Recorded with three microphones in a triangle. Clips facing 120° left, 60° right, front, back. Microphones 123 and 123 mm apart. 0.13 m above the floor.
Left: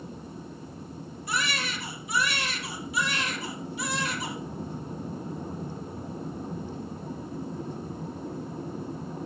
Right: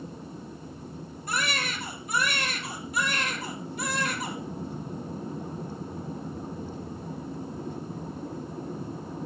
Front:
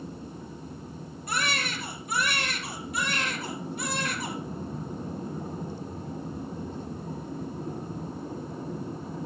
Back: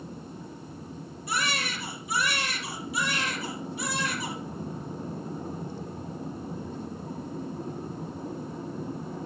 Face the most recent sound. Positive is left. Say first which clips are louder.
# even, even
turn(degrees=-25)